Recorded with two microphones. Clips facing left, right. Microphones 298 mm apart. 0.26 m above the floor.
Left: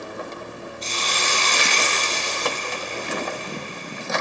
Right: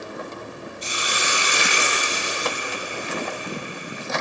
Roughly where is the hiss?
Centre.